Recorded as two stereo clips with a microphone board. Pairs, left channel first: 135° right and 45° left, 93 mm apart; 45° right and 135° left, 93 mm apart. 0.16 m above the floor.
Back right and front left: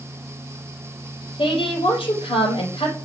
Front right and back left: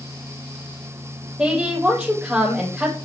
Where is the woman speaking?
145° right, 4 m.